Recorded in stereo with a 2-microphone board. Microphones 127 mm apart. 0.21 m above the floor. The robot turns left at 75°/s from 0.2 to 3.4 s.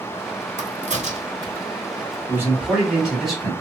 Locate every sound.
0.6 s a crack: 85° right, 1.2 m; by 1.7 s 15° right (ahead or behind), 1.2 m
2.3 s a man speaking: 20° right (ahead or behind), 1.5 m; by 3.5 s 5° left (ahead or behind), 1.5 m